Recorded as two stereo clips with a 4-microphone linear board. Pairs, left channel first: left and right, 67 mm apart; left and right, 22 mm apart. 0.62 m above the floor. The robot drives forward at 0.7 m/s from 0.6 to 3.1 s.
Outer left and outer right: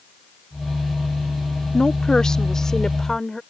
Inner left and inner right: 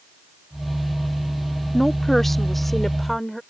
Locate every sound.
1.7 s a woman speaking: 10° left (ahead or behind); by 3.4 s 5° left (ahead or behind)